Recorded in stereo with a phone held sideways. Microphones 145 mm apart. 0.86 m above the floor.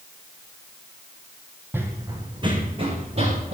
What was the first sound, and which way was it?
Running footsteps, 15° right (ahead or behind).